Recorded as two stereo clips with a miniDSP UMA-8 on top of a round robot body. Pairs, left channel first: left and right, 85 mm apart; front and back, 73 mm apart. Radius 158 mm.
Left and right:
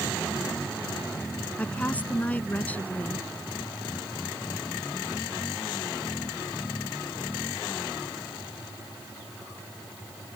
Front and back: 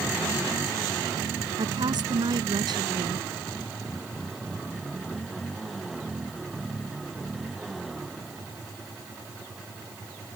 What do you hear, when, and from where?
1.6 s a woman speaking: 160° left